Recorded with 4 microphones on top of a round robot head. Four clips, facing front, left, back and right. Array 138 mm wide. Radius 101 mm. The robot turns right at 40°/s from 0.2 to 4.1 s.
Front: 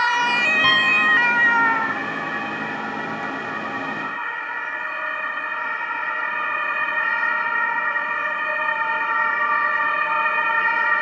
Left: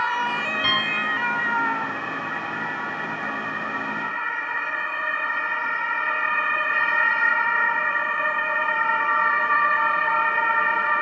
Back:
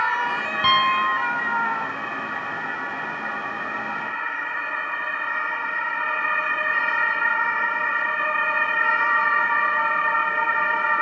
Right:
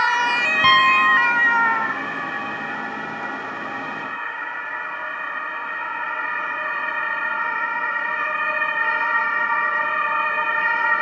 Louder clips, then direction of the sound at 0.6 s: Right 15 dB, back 4 dB; 95° right.